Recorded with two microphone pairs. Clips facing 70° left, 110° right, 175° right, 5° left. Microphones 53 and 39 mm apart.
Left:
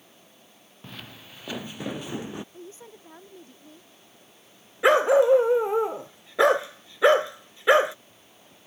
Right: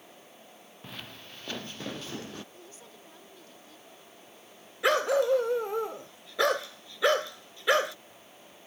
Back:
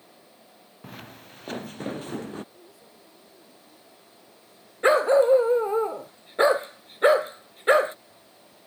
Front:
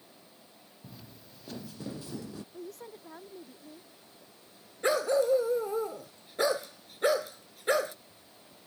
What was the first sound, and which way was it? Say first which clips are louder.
Footsteps: left 2 dB, back 9 dB; 165° left.